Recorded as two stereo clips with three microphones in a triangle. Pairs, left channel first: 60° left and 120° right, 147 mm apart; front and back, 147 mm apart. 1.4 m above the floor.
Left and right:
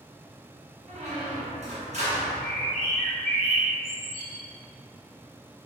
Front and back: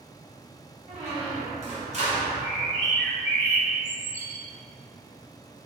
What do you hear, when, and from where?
0.9 s a squeak: 150° right, 0.9 m
2.2 s a bird: 105° right, 1.2 m